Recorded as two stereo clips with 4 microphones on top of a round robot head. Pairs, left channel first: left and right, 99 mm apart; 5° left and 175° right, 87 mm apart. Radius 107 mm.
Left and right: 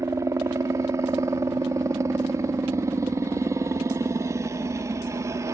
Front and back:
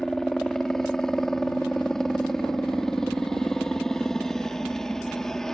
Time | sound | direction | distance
0.0 | a helicopter | 70° right | ?